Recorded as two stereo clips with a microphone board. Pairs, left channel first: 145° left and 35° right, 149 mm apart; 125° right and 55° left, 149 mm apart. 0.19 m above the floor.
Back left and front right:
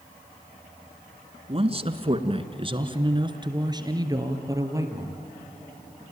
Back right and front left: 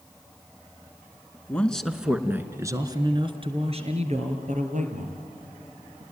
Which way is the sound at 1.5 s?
50° right.